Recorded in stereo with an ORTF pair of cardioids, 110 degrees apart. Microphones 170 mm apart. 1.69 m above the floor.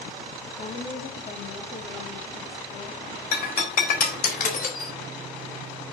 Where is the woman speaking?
45° left, 3.5 m.